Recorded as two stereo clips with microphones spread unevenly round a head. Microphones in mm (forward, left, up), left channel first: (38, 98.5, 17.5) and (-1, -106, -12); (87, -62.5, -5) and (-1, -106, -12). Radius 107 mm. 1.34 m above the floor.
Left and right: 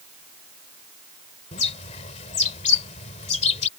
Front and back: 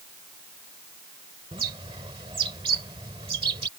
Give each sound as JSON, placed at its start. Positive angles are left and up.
{"t": 1.5, "sound": "a bird", "azimuth_deg": 140}